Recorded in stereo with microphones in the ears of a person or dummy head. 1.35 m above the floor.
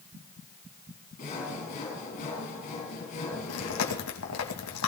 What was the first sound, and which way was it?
Sawing, 45° left (ahead or behind).